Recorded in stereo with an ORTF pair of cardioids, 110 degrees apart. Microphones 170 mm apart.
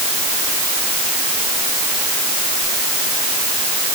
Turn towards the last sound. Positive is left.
No sound to turn to.